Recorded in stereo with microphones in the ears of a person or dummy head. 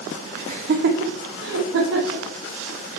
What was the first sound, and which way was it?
Laughter, 35° right (ahead or behind).